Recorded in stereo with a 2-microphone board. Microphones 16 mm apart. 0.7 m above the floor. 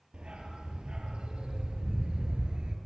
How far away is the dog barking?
About 6.5 m.